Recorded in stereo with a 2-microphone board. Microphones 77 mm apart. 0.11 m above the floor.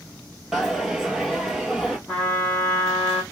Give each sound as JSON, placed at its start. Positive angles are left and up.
{"t": 0.5, "sound": "a dropped coin", "side_deg": -5, "distance_m": 1.1}
{"t": 2.1, "sound": "a trumpet", "side_deg": 10, "distance_m": 1.5}